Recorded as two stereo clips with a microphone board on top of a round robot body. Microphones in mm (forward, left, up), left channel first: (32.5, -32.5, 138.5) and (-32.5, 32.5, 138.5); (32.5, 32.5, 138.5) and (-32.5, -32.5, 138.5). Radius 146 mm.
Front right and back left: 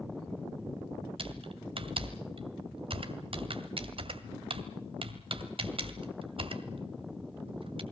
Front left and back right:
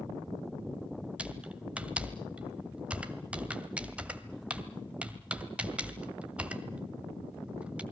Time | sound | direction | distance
1.2 | typing on a keyboard | 150° left | 1.9 m